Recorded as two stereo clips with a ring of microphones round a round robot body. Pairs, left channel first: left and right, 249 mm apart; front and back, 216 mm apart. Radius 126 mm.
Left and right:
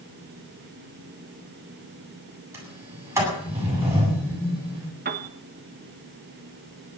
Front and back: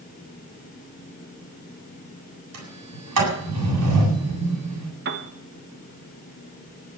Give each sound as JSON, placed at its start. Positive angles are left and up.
{"t": 2.5, "sound": "a sliding door", "azimuth_deg": -170, "distance_m": 8.5}
{"t": 5.0, "sound": "a piano", "azimuth_deg": -140, "distance_m": 1.3}